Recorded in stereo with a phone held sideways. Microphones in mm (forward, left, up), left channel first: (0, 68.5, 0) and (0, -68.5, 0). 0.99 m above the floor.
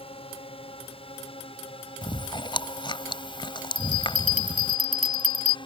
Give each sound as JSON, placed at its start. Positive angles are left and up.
{"t": 0.0, "sound": "a drone", "side_deg": 40}
{"t": 2.0, "sound": "chewing", "side_deg": 35}
{"t": 3.8, "sound": "a bell", "side_deg": -70}